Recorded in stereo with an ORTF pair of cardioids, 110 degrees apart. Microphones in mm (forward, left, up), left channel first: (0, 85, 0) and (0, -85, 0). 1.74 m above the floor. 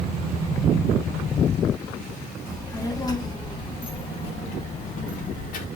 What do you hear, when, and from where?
2.5 s a child speaking: 20° left, 2.5 m; by 5.7 s 65° left, 1.7 m